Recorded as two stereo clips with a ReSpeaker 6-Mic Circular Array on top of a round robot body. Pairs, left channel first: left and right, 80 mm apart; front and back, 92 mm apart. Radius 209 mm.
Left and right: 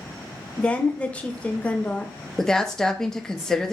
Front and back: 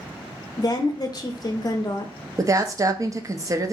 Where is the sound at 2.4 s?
170° left, 0.6 m.